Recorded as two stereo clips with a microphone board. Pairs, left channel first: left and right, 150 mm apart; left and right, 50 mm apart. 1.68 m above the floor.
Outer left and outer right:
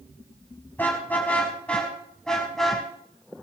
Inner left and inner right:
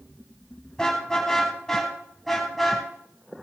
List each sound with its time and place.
0.8 s a car horn: 10° left (ahead or behind), 5.5 m; by 2.8 s centre (ahead or behind), 5.5 m